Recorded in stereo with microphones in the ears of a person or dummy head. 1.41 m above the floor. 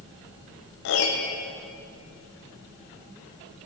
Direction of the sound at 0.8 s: 60° left (ahead or behind).